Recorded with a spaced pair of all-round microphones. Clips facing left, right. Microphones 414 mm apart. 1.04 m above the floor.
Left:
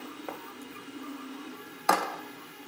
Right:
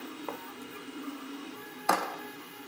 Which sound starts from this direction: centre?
Writing, at 0.3 s.